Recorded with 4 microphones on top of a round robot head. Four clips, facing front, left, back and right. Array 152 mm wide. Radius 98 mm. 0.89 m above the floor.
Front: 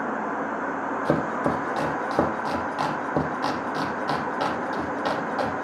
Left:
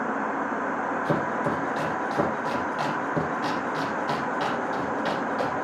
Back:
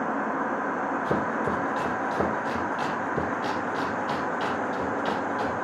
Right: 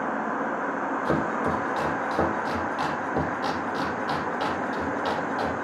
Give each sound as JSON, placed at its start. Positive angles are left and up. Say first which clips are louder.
{"t": 1.1, "sound": "chopping", "louder": "right 1 dB, front 5 dB", "azimuth_deg": 0, "distance_m": 6.0}